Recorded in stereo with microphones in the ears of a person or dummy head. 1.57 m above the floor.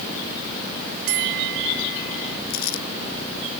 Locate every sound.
1.1 s a bell: 65° right (ahead or behind)
2.5 s crumpling: 50° left (ahead or behind)